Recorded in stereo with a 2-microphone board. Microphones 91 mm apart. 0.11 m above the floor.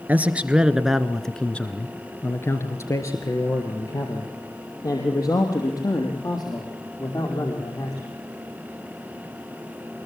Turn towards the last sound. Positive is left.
turn(degrees=45)  # may be behind; listen again after turning